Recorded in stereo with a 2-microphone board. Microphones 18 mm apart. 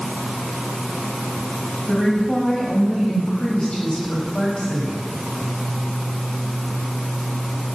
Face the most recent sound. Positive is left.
turn(degrees=75)  # may be behind; listen again after turning